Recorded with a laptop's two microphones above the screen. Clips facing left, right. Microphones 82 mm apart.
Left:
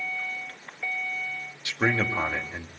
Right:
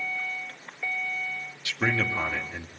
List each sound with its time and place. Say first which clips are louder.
1.6 s a man speaking: left 2 dB; 25° left (ahead or behind), 2 m